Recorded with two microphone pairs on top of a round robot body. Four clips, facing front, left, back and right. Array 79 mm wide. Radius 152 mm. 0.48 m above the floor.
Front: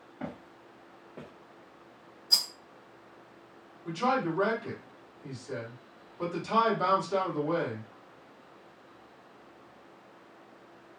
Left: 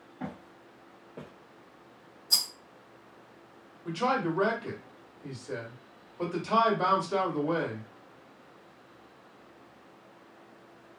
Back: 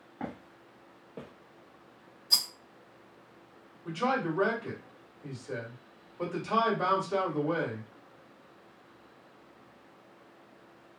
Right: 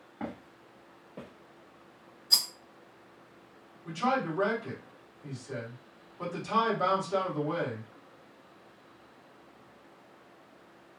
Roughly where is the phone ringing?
No phone ringing in this recording.